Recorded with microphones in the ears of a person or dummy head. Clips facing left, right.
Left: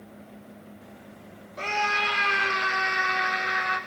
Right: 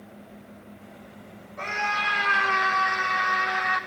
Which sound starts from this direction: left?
A scream, at 1.6 s.